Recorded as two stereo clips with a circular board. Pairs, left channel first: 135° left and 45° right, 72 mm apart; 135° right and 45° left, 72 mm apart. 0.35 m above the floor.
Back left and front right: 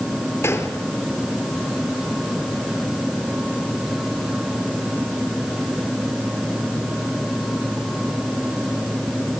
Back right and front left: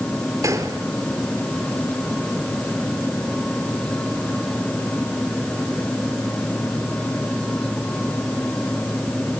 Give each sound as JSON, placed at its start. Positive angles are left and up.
{"t": 0.4, "sound": "a gunshot", "azimuth_deg": 80, "distance_m": 5.0}